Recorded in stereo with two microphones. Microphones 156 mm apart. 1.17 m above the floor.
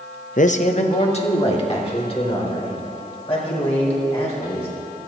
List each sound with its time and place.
0.4 s a man speaking: 55° left (ahead or behind), 0.6 m; by 5.1 s 40° left (ahead or behind), 7.5 m